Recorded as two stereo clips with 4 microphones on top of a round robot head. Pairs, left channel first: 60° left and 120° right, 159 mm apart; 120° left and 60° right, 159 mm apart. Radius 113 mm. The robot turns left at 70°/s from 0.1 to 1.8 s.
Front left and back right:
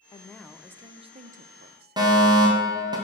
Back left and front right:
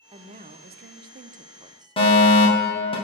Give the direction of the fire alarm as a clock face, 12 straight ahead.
6 o'clock.